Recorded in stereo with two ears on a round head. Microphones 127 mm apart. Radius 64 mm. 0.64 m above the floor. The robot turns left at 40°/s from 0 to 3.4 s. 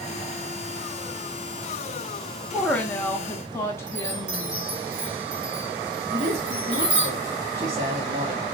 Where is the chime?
55° right (ahead or behind), 1.5 m.